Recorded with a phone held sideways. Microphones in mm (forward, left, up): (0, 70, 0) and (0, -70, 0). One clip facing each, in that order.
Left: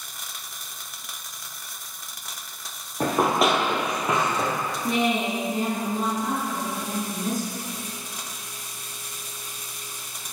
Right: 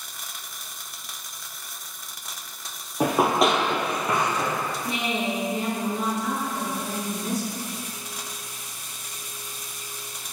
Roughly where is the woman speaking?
Left.